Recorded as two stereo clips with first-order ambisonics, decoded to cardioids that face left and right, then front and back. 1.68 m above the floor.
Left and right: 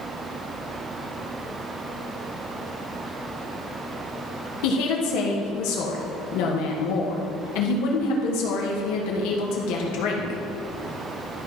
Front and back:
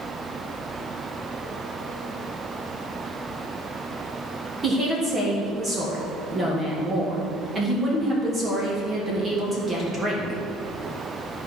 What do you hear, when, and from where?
4.6 s a woman speaking: 105° left, 1.7 m